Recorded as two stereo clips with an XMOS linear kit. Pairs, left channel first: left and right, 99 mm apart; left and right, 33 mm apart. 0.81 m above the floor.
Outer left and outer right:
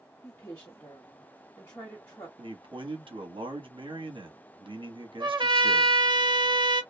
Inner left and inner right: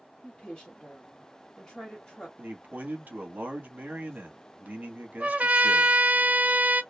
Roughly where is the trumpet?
Right.